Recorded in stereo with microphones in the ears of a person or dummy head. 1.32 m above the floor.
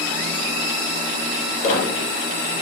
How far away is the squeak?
About 0.9 m.